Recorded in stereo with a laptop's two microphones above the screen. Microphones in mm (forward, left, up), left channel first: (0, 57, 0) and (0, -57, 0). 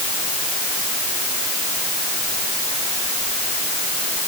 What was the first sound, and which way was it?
Only background noise.